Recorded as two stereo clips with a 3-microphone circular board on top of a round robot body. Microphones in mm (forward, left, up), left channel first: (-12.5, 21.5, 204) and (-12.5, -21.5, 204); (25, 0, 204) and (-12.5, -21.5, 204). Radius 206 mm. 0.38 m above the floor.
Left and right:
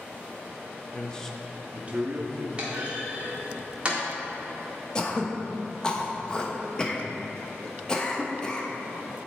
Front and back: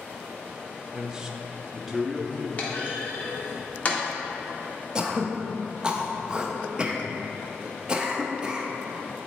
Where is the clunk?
30° right, 1.6 m.